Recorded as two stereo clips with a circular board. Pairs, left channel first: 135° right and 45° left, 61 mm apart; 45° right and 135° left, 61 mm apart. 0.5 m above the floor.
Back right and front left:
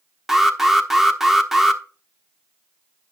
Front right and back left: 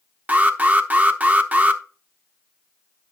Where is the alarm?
120° left, 0.9 m.